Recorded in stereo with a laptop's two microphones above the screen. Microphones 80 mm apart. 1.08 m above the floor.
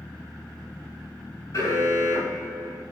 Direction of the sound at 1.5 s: 40° left (ahead or behind).